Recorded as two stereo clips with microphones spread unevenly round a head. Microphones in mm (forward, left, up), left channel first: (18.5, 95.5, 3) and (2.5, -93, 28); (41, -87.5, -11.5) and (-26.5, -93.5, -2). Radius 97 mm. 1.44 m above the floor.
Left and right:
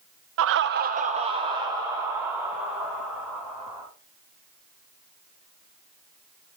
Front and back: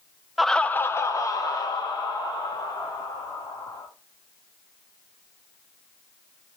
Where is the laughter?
85° right, 0.6 m; by 3.9 s 10° right, 3 m.